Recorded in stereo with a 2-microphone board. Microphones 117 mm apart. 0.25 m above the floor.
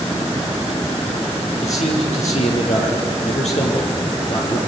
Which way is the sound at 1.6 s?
70° left (ahead or behind).